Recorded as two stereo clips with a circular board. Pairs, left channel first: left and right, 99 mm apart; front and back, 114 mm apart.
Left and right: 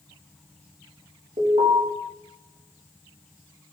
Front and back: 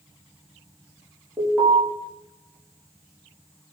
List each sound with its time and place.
1.4 s an alarm: 100° right, 3.5 m